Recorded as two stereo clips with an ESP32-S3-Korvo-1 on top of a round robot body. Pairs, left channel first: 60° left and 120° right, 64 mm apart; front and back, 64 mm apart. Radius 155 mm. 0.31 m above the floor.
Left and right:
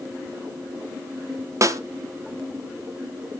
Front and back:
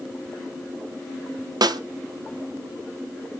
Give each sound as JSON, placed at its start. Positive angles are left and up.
{"t": 1.6, "sound": "a snare drum", "azimuth_deg": -165, "distance_m": 0.7}